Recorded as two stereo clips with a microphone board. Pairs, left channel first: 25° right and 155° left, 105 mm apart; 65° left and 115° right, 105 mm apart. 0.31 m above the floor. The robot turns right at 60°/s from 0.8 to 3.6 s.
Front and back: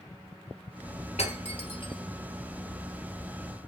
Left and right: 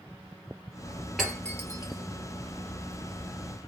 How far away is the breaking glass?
About 2 m.